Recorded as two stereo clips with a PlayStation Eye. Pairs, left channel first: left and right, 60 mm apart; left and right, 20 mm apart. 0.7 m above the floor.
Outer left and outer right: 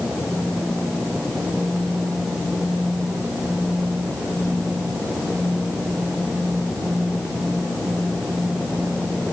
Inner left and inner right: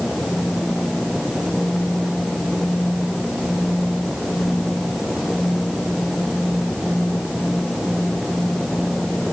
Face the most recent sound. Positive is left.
No sound to turn to.